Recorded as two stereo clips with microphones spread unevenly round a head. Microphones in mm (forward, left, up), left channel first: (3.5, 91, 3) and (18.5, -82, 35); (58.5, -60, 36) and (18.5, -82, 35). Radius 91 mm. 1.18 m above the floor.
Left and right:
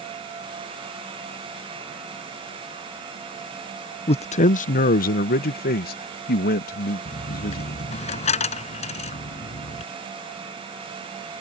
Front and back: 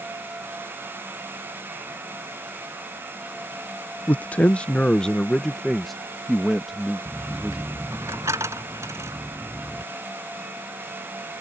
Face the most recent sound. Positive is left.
turn(degrees=155)